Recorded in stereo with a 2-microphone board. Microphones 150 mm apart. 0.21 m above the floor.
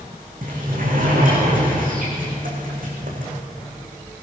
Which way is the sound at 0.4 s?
70° right (ahead or behind).